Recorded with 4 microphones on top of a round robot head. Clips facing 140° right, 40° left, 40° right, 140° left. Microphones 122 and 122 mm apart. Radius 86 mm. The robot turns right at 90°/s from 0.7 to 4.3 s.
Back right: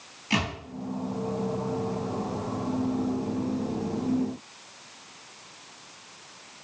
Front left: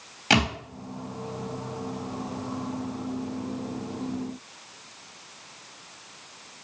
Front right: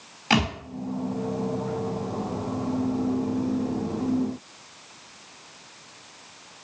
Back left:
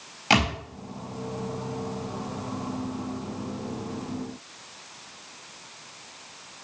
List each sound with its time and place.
0.3 s a thud: 60° left, 3 m